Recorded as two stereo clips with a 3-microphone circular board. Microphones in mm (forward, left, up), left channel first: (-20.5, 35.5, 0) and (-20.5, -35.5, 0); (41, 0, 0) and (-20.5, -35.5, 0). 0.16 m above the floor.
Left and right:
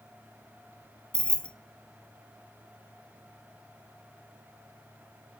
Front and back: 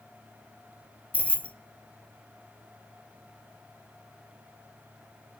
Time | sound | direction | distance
1.1 | keys jangling | 40° left | 0.7 m